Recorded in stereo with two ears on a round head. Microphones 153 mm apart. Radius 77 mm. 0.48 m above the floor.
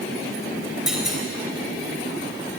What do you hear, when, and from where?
0.9 s a clunk: centre (ahead or behind), 3 m